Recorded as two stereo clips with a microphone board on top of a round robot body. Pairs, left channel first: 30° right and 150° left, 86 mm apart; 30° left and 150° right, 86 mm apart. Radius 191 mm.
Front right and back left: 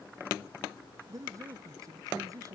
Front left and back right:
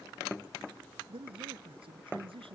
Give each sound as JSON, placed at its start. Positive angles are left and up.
{"t": 1.1, "sound": "a man speaking", "azimuth_deg": -160}